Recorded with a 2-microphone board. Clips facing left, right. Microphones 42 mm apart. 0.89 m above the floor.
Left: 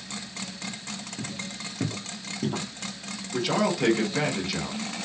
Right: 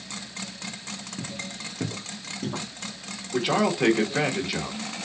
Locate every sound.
1.2 s footsteps: 30° right (ahead or behind), 0.9 m; by 2.7 s 30° left (ahead or behind), 1.2 m
3.3 s a man speaking: 20° right (ahead or behind), 0.9 m